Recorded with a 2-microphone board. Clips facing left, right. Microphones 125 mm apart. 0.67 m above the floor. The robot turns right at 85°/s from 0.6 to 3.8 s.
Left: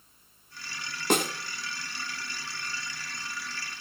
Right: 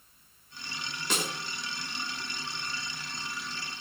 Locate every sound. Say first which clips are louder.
1.1 s a snare drum: left 8 dB; 55° left (ahead or behind), 1.5 m; by 1.3 s 50° left (ahead or behind), 1.5 m